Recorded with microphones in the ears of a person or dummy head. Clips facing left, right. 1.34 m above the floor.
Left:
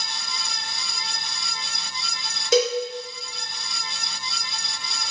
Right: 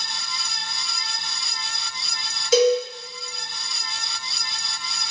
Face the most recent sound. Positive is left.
turn(degrees=60)  # may be behind; listen again after turning